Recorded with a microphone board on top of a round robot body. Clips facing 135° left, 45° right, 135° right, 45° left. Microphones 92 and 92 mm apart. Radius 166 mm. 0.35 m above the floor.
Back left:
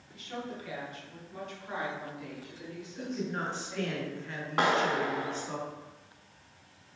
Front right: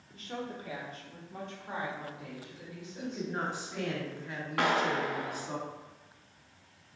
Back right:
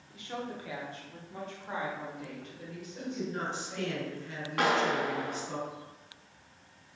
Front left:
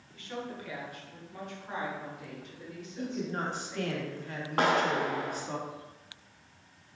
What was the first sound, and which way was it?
A woman speaking, 65° right.